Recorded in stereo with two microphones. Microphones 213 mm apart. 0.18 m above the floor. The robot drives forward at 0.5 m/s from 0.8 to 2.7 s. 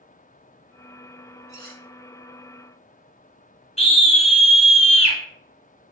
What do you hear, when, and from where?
1.5 s cutlery clinking: 55° right (ahead or behind), 1.1 m
3.8 s a scream: 30° left (ahead or behind), 1.1 m